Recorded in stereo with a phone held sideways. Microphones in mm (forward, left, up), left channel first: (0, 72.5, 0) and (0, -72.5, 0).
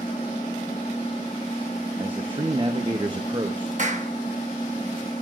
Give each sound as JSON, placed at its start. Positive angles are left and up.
{"t": 0.0, "sound": "an engine running", "side_deg": 35, "distance_m": 6.5}
{"t": 2.0, "sound": "a man speaking", "side_deg": -35, "distance_m": 1.0}
{"t": 3.8, "sound": "a clap", "side_deg": -55, "distance_m": 1.2}